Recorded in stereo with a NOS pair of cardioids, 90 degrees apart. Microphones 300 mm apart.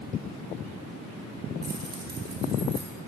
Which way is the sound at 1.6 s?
35° right.